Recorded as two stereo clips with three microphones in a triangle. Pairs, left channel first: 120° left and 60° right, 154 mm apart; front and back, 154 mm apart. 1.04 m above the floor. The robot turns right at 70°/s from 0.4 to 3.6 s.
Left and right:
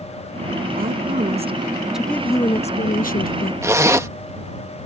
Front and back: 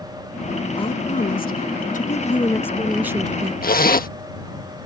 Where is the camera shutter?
I don't hear a camera shutter.